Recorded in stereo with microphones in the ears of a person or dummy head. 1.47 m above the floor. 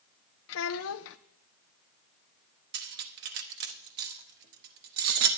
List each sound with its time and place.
0.5 s a child speaking: 70° left (ahead or behind), 0.7 m
2.7 s cutlery clinking: 50° right (ahead or behind), 0.9 m